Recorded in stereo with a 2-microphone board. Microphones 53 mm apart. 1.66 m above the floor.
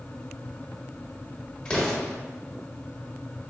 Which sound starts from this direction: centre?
An explosion, at 1.6 s.